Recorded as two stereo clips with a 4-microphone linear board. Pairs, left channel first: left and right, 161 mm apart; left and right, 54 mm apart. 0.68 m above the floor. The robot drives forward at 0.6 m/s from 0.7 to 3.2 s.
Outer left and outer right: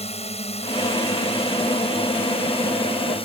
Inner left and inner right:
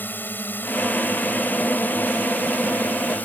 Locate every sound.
0.0 s a drone: 40° left (ahead or behind); by 3.3 s 35° left (ahead or behind)